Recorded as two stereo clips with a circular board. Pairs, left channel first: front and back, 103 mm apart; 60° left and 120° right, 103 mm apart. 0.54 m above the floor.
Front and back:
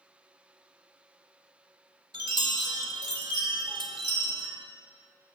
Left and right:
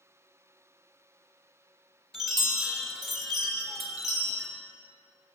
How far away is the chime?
About 0.9 m.